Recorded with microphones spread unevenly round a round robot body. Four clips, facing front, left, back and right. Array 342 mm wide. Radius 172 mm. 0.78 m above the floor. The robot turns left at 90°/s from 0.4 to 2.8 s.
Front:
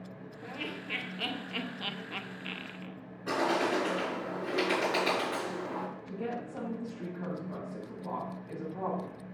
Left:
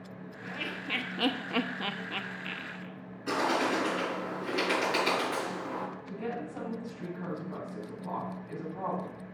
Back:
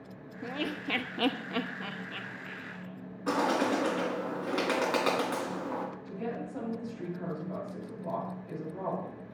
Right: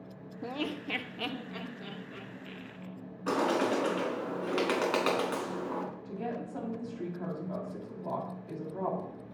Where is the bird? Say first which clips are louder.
Even, back 1 dB; 150° right, 4 m.